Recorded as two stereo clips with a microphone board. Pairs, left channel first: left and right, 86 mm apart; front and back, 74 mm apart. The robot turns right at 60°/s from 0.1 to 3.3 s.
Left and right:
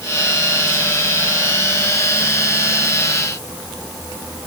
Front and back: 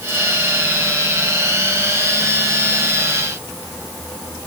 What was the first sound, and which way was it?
Only background noise.